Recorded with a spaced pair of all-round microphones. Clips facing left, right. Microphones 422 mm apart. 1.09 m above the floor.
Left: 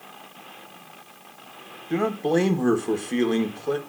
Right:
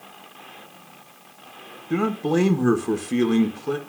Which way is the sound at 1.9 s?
20° right (ahead or behind).